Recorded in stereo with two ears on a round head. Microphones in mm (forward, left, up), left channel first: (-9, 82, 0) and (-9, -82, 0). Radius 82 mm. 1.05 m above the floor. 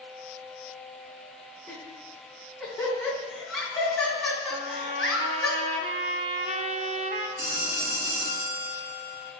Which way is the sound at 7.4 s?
75° right (ahead or behind).